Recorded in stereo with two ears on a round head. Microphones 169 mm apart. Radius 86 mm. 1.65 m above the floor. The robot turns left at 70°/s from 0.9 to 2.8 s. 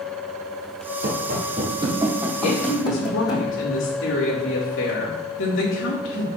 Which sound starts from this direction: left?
A woman speaking, at 2.4 s.